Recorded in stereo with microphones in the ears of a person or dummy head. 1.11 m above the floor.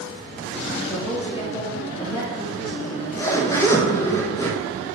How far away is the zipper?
About 1.0 m.